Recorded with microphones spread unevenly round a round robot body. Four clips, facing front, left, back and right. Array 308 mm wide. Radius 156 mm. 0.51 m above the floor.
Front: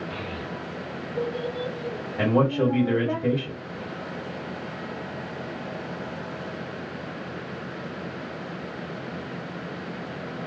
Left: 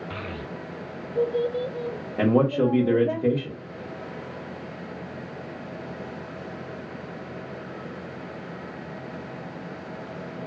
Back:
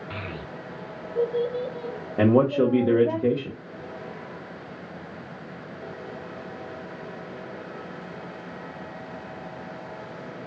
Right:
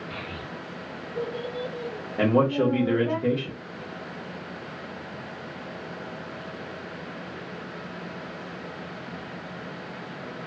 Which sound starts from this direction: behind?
A man speaking, at 2.2 s.